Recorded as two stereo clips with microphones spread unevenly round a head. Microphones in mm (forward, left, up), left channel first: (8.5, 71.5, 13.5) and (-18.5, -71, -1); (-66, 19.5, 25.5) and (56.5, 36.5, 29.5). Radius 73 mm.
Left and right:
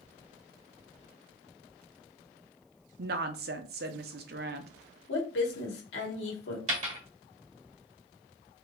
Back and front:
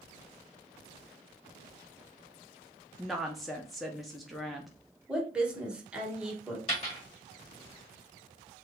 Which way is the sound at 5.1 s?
90° left.